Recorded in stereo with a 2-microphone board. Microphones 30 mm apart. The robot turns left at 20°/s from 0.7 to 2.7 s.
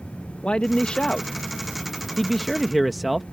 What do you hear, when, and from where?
0.4 s a man speaking: 45° left; by 3.2 s 5° left